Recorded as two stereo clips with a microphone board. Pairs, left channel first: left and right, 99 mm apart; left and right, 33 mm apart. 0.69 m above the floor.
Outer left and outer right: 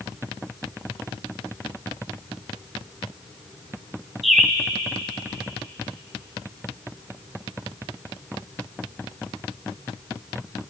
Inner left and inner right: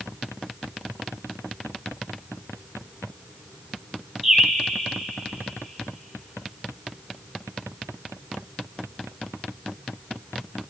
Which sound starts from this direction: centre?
A bird, at 4.2 s.